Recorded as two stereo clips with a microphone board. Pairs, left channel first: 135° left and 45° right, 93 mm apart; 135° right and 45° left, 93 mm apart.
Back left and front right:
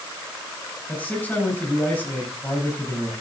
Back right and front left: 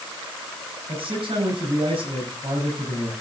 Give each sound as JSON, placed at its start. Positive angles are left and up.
{"t": 0.9, "sound": "a man speaking", "azimuth_deg": 65, "distance_m": 8.5}